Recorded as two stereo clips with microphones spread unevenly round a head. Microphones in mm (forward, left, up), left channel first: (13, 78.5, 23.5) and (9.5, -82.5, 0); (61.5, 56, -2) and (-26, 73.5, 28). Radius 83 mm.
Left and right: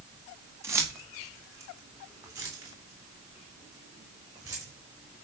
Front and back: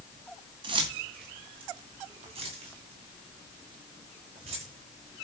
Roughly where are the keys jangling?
Behind.